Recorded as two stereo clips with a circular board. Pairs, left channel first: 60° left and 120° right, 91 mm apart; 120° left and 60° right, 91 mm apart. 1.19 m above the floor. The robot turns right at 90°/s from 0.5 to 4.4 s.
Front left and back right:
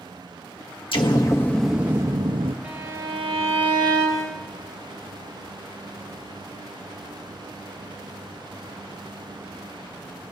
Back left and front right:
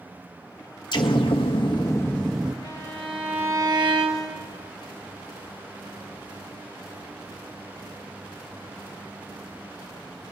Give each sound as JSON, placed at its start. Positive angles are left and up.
{"t": 0.9, "sound": "an explosion", "azimuth_deg": 80, "distance_m": 1.4}
{"t": 2.6, "sound": "a violin", "azimuth_deg": 165, "distance_m": 4.0}